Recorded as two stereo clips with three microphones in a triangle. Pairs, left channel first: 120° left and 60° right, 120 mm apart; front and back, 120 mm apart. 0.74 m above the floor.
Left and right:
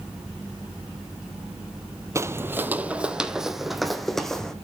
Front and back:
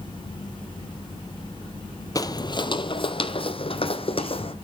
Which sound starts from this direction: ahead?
Footsteps, at 2.1 s.